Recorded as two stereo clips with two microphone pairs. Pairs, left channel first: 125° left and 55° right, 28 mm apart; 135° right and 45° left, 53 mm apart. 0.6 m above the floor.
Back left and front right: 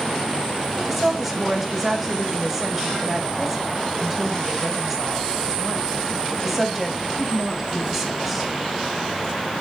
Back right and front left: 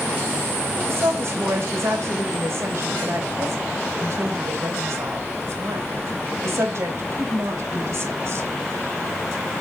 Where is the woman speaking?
25° left, 2.5 m.